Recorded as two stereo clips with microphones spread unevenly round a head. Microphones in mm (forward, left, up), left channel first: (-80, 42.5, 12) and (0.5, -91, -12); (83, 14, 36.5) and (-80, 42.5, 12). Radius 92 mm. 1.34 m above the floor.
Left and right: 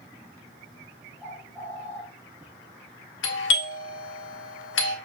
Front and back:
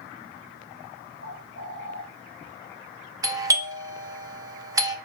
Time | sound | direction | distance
1.2 | a bird | 150° right | 2 m
3.2 | a doorbell | 100° left | 0.6 m